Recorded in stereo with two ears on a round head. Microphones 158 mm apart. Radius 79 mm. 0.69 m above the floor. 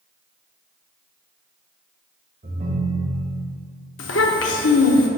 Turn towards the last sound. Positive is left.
turn(degrees=80)